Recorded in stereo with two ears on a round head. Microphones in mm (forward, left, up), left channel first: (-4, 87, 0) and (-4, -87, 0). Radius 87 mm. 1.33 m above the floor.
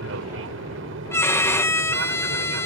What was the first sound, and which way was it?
An aircraft, 70° right (ahead or behind).